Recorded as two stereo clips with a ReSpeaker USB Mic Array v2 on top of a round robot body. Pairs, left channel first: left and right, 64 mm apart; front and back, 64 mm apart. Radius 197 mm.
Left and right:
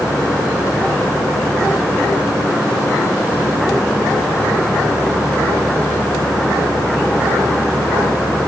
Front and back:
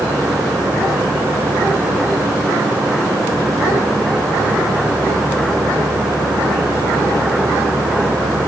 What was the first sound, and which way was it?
Only background noise.